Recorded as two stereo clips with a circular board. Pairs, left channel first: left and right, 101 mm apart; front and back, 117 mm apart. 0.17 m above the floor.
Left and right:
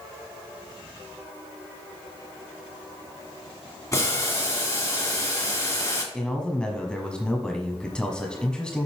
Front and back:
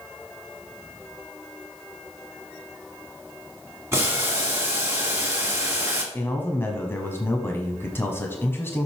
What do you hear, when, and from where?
3.9 s boiling: 125° left, 2 m
6.1 s a man speaking: 25° left, 1.0 m